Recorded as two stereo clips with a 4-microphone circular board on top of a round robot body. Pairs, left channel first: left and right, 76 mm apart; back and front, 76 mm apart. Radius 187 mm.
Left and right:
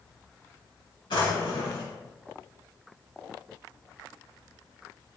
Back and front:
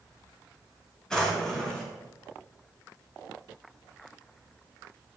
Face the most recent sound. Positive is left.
turn(degrees=100)